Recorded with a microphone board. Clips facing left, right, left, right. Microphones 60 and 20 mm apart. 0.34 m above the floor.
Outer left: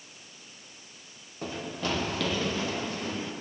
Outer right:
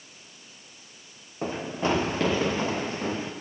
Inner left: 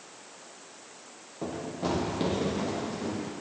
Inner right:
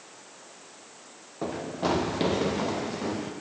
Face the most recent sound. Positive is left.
turn(degrees=-30)  # may be behind; listen again after turning